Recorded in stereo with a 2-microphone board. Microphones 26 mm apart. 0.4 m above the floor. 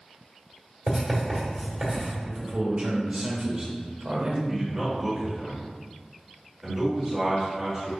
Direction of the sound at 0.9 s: 20° right (ahead or behind).